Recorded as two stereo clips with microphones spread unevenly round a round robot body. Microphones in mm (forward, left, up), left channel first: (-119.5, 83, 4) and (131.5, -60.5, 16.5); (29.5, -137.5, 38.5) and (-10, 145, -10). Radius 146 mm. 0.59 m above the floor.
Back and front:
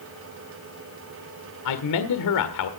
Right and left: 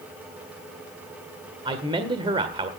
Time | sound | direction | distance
1.6 | a man speaking | 170° left | 1.6 m